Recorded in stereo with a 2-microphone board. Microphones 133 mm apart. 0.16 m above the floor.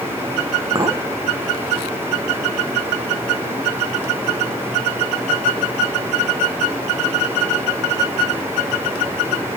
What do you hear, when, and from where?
0.8 s a clink: 30° right (ahead or behind), 1.0 m